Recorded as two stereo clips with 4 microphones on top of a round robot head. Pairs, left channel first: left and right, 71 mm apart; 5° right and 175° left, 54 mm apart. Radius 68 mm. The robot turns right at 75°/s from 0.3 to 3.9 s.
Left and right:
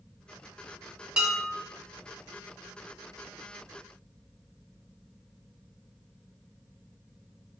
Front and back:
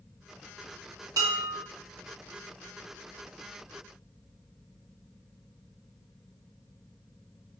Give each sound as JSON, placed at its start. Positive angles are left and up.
{"t": 1.2, "sound": "dishes clattering", "azimuth_deg": -165, "distance_m": 1.5}